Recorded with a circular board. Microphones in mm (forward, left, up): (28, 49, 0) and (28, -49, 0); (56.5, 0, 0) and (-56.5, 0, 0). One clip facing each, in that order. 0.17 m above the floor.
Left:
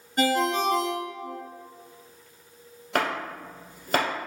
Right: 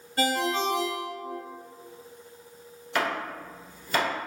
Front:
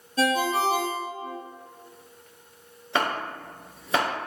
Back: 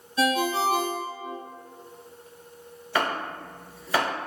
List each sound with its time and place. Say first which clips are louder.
0.2 s a ringtone: left 3 dB, even; 30° left, 1.3 m
3.0 s chopping: left 1 dB, even; 65° left, 1.2 m